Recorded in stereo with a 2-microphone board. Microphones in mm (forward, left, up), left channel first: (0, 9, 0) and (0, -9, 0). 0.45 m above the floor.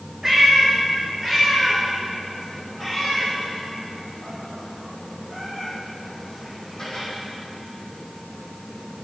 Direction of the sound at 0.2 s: 25° right (ahead or behind).